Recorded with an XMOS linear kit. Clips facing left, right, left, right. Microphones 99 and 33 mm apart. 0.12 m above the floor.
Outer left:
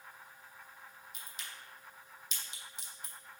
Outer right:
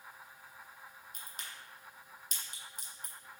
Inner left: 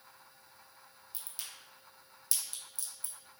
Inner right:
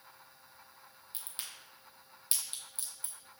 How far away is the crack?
About 1.2 m.